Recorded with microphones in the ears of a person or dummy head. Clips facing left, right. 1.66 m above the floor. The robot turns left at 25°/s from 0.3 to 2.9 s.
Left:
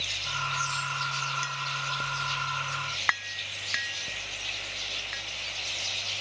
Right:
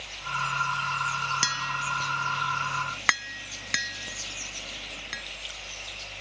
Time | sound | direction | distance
1.4 | tapping | 80° right | ?